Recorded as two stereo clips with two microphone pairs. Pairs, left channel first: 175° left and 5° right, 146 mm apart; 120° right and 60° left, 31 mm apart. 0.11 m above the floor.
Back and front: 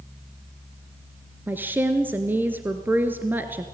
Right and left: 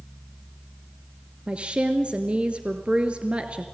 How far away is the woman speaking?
About 1.6 m.